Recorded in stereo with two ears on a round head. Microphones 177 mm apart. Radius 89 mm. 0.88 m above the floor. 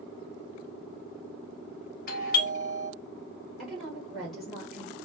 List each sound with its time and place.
2.1 s a doorbell: 50° left (ahead or behind), 1.0 m
3.6 s a woman speaking: centre (ahead or behind), 1.5 m